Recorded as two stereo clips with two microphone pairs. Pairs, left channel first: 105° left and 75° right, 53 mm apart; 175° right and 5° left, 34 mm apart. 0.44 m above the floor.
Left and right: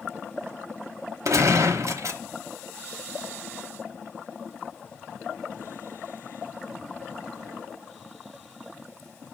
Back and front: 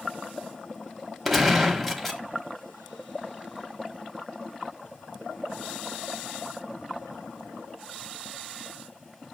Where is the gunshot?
85° right, 0.9 m.